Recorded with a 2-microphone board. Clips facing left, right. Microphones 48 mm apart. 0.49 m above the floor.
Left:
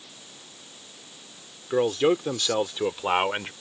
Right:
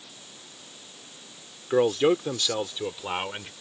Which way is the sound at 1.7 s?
10° right (ahead or behind).